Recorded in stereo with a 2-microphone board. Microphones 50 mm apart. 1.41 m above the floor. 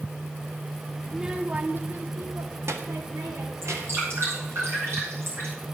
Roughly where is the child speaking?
Centre.